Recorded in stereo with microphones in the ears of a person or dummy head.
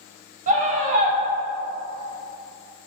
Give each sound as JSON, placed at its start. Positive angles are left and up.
{"t": 0.5, "sound": "a scream", "side_deg": -40, "distance_m": 0.9}